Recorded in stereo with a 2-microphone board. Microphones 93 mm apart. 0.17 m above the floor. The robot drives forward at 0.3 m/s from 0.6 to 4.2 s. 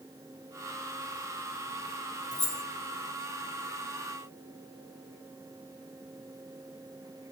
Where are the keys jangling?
40° left (ahead or behind), 1.9 m; by 2.6 s 45° left (ahead or behind), 1.9 m.